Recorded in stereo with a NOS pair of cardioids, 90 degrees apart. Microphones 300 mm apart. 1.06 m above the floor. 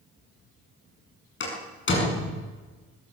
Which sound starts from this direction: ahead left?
A door slam, at 1.4 s.